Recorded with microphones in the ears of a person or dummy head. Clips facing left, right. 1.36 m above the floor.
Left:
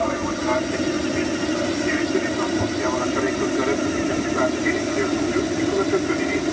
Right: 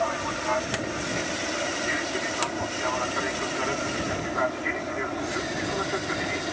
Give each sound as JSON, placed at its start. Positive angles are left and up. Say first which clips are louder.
{"t": 0.0, "sound": "an aircraft", "louder": "left 6 dB", "side_deg": 45}